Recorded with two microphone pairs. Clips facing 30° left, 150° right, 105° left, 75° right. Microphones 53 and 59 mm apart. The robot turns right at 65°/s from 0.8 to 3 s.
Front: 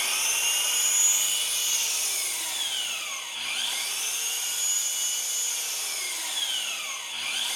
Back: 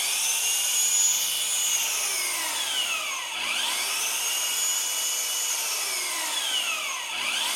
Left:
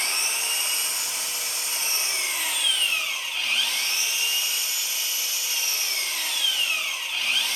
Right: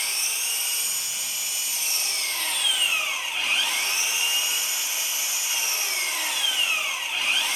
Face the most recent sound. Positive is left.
turn(degrees=-140)